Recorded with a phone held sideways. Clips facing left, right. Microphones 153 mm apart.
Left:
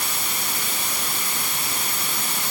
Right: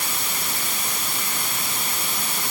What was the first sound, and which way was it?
Only background noise.